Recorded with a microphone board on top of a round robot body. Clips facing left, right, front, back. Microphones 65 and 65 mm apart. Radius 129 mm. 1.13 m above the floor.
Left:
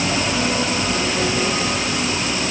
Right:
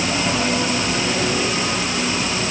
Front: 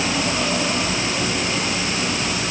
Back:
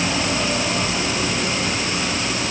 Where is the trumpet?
I don't hear a trumpet.